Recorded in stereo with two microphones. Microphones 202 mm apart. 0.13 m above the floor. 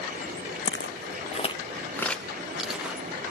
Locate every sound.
0.7 s footsteps: 80° left, 0.5 m; by 3.1 s 5° right (ahead or behind), 1.5 m